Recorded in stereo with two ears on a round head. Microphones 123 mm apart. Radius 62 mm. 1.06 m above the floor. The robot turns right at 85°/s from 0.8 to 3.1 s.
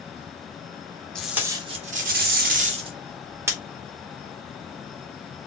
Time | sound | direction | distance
1.1 | tape being pulled | 175° left | 0.9 m